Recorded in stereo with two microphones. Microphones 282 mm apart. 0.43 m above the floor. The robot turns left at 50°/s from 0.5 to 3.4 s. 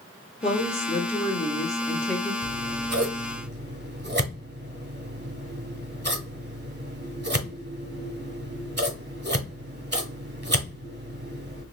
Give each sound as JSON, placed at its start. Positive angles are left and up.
{"t": 0.4, "sound": "a woman speaking", "side_deg": 20, "distance_m": 0.8}
{"t": 2.4, "sound": "scissors", "side_deg": -70, "distance_m": 1.0}